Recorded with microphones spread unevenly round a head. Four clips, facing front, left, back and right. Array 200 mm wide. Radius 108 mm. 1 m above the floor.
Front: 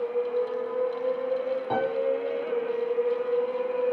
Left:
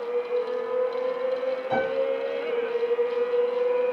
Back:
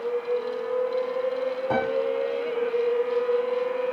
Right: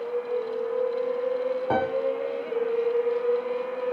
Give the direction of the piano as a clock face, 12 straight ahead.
4 o'clock.